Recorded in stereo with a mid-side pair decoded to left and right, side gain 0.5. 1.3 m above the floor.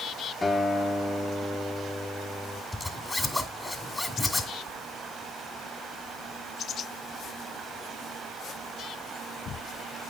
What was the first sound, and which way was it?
A guitar, 20° left.